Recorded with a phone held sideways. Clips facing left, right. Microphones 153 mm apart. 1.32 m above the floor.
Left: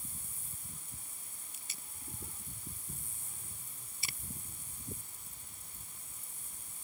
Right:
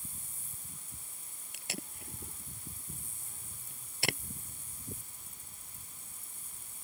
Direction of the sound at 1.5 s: 75° right (ahead or behind).